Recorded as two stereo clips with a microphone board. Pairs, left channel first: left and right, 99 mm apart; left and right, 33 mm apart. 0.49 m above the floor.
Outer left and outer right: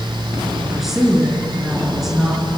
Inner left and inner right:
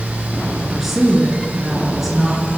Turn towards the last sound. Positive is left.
turn(degrees=-5)  # may be behind; listen again after turning